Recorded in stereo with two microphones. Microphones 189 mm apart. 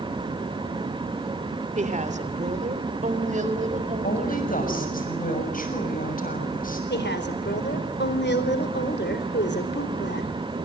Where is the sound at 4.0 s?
45° left (ahead or behind), 6.5 m.